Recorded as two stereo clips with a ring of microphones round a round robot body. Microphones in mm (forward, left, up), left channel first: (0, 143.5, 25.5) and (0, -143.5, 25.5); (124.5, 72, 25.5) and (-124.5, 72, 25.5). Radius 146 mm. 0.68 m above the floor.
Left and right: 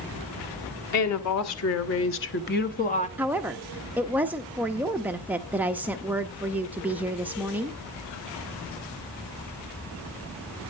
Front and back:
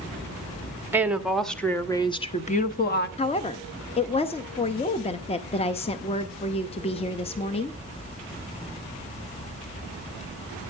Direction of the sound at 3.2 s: 15° right.